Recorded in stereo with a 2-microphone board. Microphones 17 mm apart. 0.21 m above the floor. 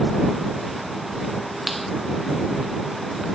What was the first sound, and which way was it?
A clap, centre (ahead or behind).